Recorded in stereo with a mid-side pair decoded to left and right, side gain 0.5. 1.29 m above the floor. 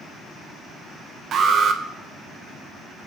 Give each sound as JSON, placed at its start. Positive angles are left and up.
{"t": 1.3, "sound": "an alarm", "azimuth_deg": -55, "distance_m": 1.1}